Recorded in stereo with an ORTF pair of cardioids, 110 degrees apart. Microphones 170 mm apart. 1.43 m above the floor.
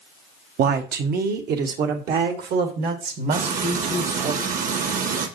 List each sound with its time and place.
0.6 s a woman speaking: 65° right, 1.2 m; by 4.3 s 70° right, 3.5 m
3.3 s frying: 55° right, 1.5 m